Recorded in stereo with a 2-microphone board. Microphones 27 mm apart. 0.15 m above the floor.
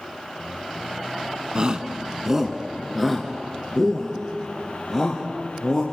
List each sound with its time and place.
1.6 s a shout: 35° right (ahead or behind), 1.2 m; by 5.8 s 10° left (ahead or behind), 4 m